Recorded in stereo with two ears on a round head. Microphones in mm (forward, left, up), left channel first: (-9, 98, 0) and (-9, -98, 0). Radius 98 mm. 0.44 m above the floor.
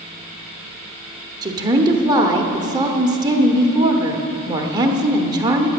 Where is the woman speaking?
20° right (ahead or behind), 0.9 m.